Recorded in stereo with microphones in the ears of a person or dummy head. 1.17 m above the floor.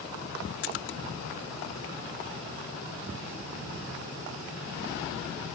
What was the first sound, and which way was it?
A splash, 55° left (ahead or behind).